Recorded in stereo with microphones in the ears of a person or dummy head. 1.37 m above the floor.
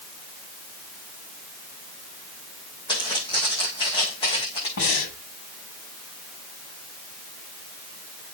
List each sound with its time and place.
2.9 s footsteps: 25° left (ahead or behind), 4.5 m
4.8 s breathing: 80° left, 6.5 m